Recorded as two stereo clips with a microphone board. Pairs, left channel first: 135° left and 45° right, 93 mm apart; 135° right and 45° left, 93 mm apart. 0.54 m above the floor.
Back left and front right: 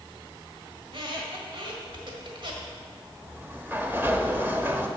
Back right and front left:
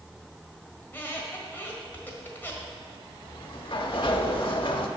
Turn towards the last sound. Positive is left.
turn(degrees=-115)